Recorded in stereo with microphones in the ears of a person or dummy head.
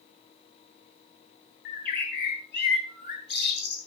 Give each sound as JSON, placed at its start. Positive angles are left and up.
{"t": 1.6, "sound": "a bird", "side_deg": 55, "distance_m": 3.5}